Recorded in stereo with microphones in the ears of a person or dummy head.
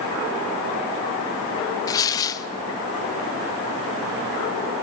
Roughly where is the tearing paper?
Centre.